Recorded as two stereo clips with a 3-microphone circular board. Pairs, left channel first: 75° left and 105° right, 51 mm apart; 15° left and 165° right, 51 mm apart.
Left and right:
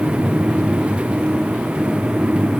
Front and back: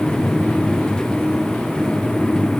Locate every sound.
Only background noise.